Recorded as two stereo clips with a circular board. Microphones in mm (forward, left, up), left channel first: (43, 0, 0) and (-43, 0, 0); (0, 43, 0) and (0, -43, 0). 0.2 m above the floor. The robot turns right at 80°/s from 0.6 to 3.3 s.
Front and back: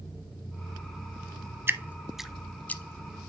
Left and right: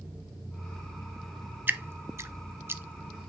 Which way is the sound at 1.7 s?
140° right.